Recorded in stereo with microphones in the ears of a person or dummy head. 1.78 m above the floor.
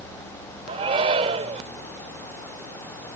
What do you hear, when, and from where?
0.7 s a shout: 30° right (ahead or behind)